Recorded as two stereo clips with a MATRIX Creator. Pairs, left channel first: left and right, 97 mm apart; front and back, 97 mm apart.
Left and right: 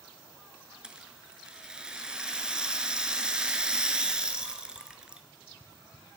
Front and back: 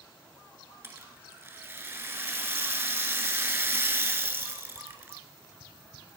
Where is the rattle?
160° right, 0.8 m.